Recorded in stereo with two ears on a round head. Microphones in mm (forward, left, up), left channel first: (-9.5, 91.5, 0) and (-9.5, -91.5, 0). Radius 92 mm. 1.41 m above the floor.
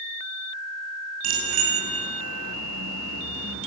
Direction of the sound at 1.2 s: 75° right (ahead or behind).